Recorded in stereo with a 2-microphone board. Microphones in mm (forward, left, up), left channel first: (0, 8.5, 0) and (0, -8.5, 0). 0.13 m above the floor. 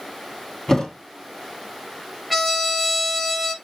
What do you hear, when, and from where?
0.7 s a thud: 20° left (ahead or behind), 2.5 m
2.3 s a trumpet: centre (ahead or behind), 1.0 m